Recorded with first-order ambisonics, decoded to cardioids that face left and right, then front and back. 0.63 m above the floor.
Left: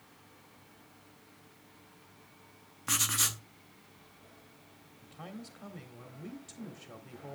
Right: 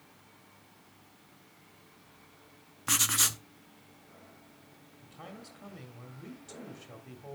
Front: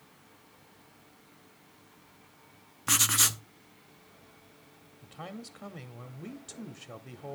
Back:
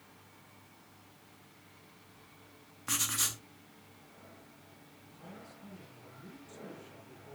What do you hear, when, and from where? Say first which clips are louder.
2.9 s writing: right 3 dB, front 8 dB; 25° right, 0.7 m
5.0 s a man speaking: even, front 9 dB; 5° left, 1.4 m